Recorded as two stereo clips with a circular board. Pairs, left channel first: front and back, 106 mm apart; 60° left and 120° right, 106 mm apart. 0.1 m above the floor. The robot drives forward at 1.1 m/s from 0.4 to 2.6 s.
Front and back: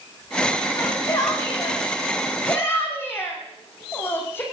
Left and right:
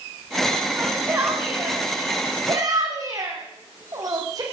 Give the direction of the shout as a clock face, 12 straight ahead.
2 o'clock.